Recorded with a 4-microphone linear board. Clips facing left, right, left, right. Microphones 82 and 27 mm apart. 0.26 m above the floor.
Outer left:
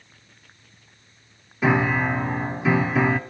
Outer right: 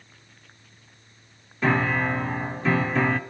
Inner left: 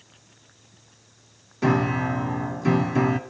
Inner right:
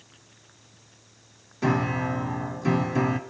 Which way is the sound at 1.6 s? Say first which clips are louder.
Outer left 2 dB, inner left 3 dB; 10° left (ahead or behind).